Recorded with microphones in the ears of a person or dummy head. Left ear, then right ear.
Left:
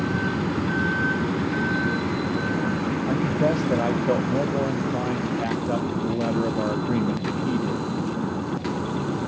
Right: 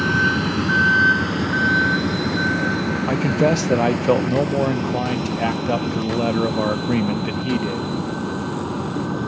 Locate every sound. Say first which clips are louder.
0.0 s a vehicle: right 8 dB; 60° right (ahead or behind); by 9.3 s 65° right (ahead or behind)
3.1 s a man speaking: right 5 dB; 80° right